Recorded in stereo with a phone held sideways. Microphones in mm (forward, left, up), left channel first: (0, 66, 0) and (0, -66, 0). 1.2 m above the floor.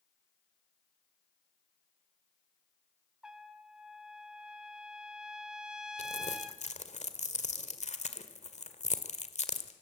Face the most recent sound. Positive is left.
turn(degrees=60)  # may be behind; listen again after turning